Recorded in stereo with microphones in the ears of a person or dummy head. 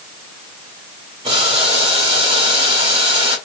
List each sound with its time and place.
1.2 s boiling: 35° right (ahead or behind), 2.5 m